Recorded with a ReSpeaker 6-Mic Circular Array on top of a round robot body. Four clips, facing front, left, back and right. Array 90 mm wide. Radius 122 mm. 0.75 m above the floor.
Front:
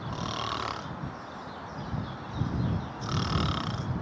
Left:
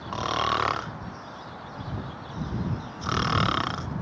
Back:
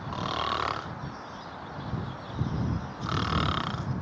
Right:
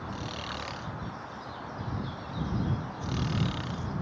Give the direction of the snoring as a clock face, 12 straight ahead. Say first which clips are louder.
Left 12 dB, back 4 dB; 9 o'clock.